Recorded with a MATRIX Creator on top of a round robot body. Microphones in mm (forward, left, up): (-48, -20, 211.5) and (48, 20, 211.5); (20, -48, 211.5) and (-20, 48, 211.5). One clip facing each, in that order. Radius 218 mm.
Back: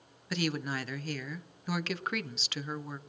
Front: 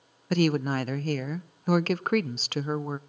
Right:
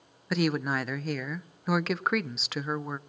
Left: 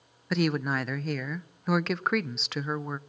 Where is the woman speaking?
20° left, 0.9 m.